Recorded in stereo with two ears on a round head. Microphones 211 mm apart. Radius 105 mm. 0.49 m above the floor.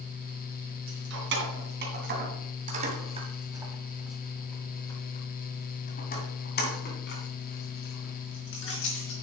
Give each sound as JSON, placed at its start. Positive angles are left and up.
{"t": 0.9, "sound": "keys jangling", "side_deg": -55, "distance_m": 3.0}